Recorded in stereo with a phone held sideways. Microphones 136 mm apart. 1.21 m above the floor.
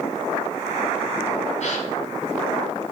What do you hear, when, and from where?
1.6 s a gasp: 60° left (ahead or behind), 2.5 m